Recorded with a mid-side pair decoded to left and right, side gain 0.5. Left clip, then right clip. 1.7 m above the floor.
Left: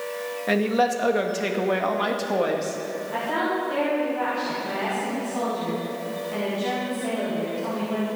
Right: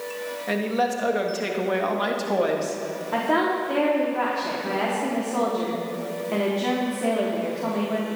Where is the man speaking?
25° left, 2 m; by 2.8 s 5° right, 2.5 m.